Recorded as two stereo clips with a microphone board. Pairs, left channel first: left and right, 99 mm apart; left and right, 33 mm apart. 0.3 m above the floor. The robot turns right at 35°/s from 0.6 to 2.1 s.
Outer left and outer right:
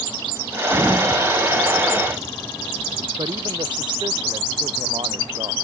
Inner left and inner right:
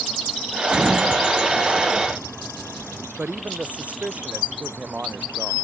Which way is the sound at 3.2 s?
50° right (ahead or behind).